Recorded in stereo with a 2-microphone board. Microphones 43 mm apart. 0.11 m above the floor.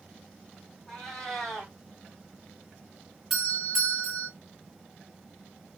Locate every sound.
0.9 s a cat meowing: 10° left (ahead or behind), 1.7 m
3.3 s a doorbell: 10° right (ahead or behind), 1.5 m